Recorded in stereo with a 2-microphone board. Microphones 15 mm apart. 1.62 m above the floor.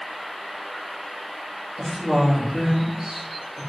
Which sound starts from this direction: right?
A woman speaking, at 1.8 s.